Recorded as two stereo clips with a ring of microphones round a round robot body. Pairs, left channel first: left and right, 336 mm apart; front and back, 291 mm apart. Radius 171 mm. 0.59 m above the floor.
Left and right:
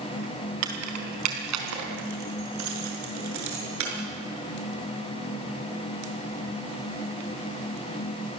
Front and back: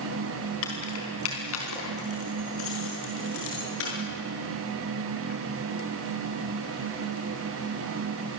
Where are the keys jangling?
50° right, 4 m.